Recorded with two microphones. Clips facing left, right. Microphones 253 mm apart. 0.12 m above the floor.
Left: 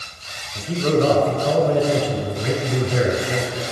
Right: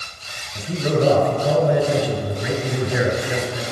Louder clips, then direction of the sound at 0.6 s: Left 2 dB; 15° right (ahead or behind).